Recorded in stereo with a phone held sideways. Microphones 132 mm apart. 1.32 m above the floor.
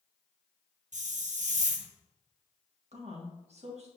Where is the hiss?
70° right (ahead or behind), 0.9 m.